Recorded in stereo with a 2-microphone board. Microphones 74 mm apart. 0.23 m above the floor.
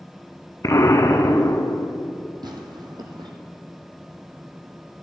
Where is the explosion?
50° left (ahead or behind), 0.8 m.